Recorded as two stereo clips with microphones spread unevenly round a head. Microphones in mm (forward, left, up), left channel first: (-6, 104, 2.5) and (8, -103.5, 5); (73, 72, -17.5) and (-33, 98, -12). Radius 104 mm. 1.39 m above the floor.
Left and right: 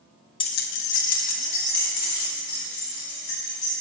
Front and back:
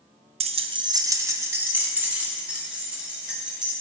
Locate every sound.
0.4 s keys jangling: 160° left, 0.5 m; by 3.8 s 85° left, 4 m